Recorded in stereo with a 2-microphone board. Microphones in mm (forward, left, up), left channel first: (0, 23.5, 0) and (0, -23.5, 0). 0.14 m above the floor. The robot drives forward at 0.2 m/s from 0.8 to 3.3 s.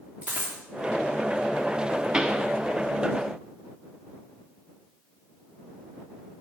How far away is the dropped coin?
About 3.5 m.